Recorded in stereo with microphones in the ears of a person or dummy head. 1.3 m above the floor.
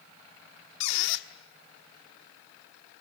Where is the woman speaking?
No woman speaking in this recording.